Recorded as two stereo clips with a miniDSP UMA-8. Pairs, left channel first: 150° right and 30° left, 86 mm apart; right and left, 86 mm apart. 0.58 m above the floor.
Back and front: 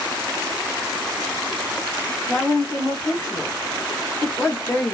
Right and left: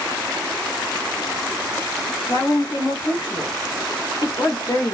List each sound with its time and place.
2.3 s a woman speaking: 105° right, 0.8 m